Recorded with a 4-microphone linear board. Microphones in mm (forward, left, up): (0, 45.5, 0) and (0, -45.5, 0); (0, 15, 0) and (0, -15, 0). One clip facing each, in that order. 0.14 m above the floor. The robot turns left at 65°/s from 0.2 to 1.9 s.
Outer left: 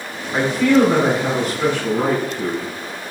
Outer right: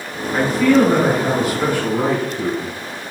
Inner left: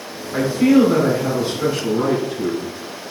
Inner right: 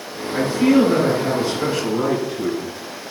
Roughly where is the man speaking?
Centre.